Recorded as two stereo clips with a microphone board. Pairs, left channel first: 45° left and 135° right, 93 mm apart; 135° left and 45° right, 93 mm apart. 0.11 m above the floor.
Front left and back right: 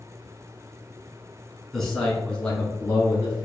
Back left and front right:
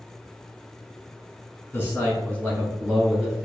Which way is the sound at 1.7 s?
135° left.